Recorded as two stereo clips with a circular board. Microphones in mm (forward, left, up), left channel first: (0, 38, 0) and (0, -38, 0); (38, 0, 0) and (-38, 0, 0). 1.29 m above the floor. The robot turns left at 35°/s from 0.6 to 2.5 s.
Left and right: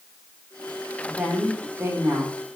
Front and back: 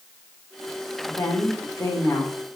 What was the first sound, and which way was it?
A woman speaking, 5° right.